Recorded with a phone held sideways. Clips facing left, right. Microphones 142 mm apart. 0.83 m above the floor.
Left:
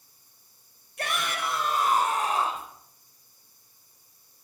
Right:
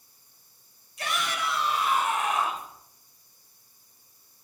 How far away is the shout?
About 3.5 m.